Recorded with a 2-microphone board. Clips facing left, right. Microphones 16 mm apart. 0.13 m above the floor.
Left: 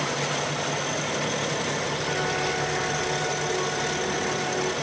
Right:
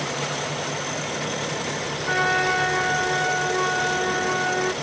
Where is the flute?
40° right (ahead or behind).